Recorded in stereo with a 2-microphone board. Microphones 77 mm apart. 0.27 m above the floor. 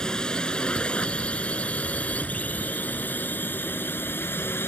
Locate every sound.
0.0 s a drone: 10° left (ahead or behind); by 4.7 s 30° left (ahead or behind)